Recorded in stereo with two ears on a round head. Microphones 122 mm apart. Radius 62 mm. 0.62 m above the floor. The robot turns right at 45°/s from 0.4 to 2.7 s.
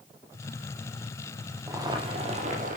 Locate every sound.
1.7 s boiling: 155° right, 3.5 m; by 2.8 s 110° right, 3.5 m